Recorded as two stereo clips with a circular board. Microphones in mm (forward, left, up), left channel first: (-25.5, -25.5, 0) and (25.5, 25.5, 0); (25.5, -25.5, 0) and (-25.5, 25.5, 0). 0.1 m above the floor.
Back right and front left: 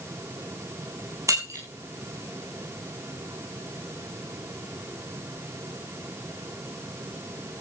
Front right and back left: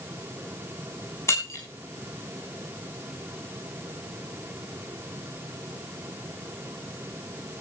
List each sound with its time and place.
1.3 s breaking glass: 5° left, 7 m